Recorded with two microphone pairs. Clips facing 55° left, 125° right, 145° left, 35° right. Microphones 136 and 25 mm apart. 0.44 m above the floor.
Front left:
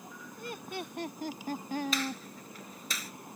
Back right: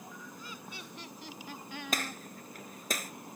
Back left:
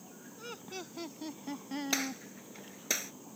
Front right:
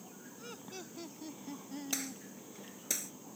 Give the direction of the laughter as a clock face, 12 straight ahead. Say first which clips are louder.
Front left 7 dB, back left 4 dB; 10 o'clock.